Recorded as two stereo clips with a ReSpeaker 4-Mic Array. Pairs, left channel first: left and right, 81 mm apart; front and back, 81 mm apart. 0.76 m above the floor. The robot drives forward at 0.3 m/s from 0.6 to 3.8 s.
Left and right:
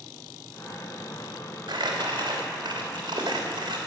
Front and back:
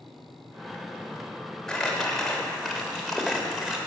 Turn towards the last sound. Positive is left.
turn(degrees=-95)